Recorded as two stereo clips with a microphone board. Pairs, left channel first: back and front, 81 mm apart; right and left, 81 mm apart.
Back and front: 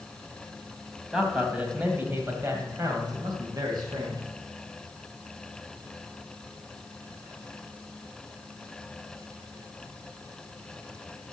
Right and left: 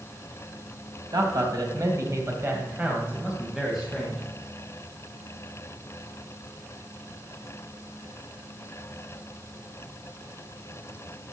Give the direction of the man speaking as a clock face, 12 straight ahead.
9 o'clock.